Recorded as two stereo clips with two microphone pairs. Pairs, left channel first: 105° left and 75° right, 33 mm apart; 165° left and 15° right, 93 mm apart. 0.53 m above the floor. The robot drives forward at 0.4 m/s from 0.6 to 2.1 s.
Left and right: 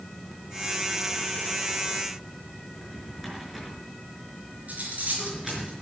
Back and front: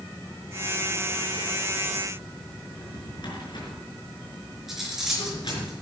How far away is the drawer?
About 5 m.